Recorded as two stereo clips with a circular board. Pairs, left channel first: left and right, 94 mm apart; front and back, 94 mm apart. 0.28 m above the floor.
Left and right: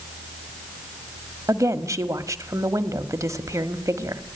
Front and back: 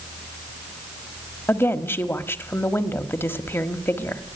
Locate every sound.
1.5 s a woman speaking: 55° right, 1.4 m